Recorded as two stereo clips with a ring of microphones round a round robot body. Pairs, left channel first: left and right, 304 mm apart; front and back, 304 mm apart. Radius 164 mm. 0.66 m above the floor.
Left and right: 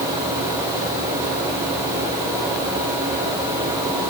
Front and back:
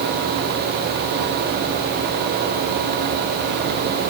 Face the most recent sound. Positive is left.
No sound to turn to.